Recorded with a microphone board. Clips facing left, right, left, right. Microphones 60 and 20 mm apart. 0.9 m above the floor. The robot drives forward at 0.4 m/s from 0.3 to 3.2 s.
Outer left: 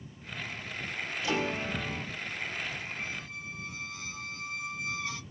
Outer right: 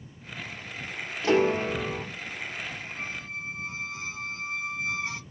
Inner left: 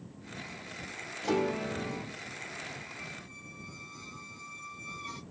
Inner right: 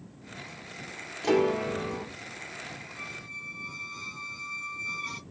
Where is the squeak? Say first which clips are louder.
Outer right 3 dB, inner right 5 dB; 35° right (ahead or behind), 1.1 m; by 5.2 s 30° right (ahead or behind), 1.1 m.